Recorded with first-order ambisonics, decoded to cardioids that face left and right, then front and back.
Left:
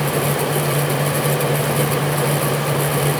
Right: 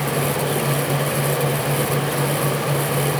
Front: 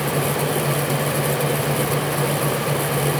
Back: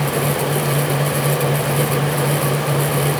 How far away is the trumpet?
No trumpet in this recording.